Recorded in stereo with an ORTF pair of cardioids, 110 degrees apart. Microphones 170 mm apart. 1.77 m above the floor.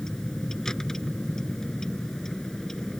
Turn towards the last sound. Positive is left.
turn(degrees=5)